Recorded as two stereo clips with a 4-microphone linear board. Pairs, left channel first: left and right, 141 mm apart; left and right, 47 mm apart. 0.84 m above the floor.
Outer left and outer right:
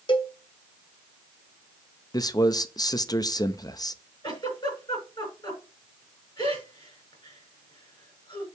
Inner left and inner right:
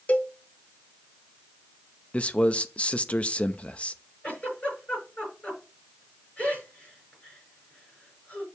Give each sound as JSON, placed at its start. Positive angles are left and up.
{"t": 0.1, "sound": "a cowbell", "side_deg": 35, "distance_m": 1.0}
{"t": 2.1, "sound": "a man speaking", "side_deg": 30, "distance_m": 0.7}
{"t": 4.2, "sound": "a giggle", "side_deg": 30, "distance_m": 5.5}